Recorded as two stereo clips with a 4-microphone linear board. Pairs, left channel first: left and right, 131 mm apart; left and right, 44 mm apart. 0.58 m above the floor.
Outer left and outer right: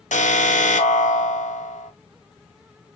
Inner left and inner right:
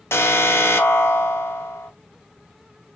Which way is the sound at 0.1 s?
70° left (ahead or behind).